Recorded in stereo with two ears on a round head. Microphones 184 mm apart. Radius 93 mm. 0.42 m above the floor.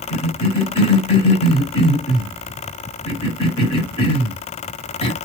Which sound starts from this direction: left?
A cough, at 0.1 s.